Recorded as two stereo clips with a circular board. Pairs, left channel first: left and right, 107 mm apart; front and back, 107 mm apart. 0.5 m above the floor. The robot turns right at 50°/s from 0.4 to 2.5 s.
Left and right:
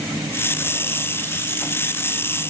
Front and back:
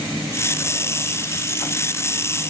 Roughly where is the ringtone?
No ringtone in this recording.